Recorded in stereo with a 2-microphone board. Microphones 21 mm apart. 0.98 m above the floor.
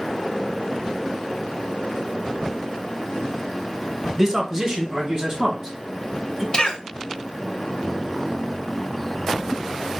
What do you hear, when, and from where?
4.2 s a man speaking: 25° right (ahead or behind), 0.8 m; by 6.4 s 20° right (ahead or behind), 1.5 m
6.5 s a cough: 35° left (ahead or behind), 0.6 m